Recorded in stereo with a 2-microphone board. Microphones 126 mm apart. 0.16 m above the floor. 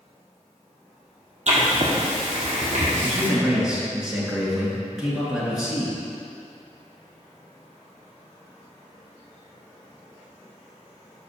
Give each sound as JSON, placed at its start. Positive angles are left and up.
{"t": 1.5, "sound": "writing", "side_deg": -65, "distance_m": 1.6}
{"t": 3.0, "sound": "a man speaking", "side_deg": -5, "distance_m": 2.0}